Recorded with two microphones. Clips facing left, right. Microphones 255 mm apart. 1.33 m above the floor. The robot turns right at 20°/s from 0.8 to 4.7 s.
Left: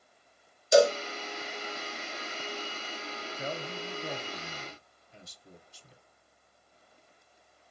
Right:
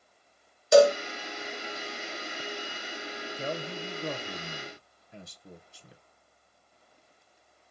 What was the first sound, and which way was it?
A cowbell, 65° right (ahead or behind).